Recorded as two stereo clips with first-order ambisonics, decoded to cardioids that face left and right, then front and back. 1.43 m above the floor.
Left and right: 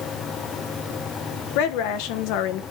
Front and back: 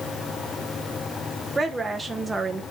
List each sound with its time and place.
1.6 s a woman speaking: 100° left, 1.0 m